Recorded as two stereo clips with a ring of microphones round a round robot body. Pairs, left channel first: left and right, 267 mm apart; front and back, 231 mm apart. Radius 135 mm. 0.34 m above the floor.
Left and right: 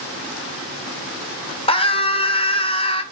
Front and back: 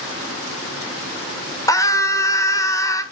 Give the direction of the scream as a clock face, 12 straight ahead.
10 o'clock.